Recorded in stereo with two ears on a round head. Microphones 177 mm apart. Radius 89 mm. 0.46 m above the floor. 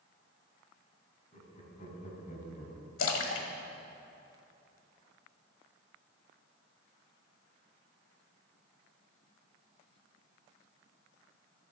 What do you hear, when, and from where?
1.3 s laughter: 35° left (ahead or behind), 3.5 m; by 2.9 s 45° left (ahead or behind), 2.5 m
3.0 s a splash: 75° left (ahead or behind), 1.4 m